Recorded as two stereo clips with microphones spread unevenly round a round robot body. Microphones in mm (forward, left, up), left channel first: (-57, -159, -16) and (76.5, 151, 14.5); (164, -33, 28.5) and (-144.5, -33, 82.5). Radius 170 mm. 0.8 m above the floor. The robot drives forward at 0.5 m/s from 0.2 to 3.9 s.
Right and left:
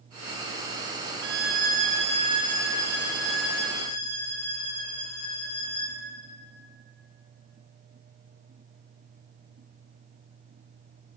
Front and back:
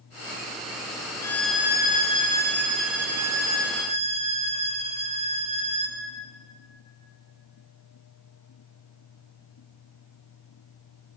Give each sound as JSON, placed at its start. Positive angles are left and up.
{"t": 1.2, "sound": "a violin", "azimuth_deg": 40, "distance_m": 1.0}